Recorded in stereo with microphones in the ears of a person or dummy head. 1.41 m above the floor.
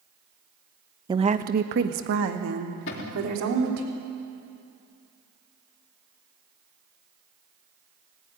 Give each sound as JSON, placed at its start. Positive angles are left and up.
{"t": 1.1, "sound": "a woman speaking", "side_deg": -15, "distance_m": 1.2}
{"t": 2.9, "sound": "a cupboard door", "side_deg": 55, "distance_m": 3.5}